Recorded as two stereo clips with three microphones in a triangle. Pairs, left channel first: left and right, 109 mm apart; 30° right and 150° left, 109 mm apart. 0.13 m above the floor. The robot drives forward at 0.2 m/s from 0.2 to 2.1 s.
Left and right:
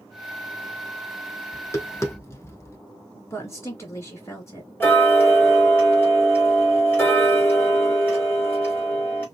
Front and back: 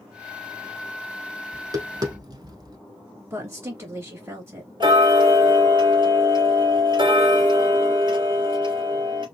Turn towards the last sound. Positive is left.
turn(degrees=155)